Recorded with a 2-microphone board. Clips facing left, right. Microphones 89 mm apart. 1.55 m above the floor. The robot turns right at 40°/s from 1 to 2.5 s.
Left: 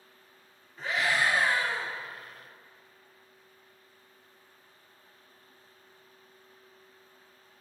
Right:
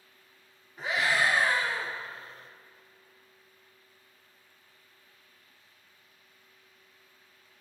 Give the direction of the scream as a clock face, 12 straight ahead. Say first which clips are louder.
Right 1 dB; 1 o'clock.